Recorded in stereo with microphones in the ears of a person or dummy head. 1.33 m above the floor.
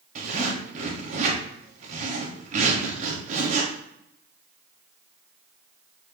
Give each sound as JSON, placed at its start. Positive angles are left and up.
{"t": 0.1, "sound": "a zipper", "side_deg": -45, "distance_m": 1.7}